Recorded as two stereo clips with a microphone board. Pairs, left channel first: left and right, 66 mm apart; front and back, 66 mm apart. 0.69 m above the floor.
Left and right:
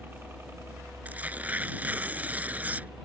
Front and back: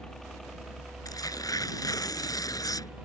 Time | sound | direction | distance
0.0 | a helicopter | 75° right | ?
1.1 | tearing paper | 25° right | ?